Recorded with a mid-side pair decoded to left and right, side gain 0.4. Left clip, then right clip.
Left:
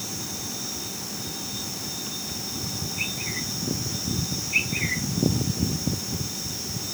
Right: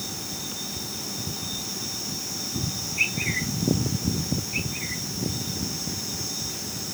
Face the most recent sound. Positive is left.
No sound to turn to.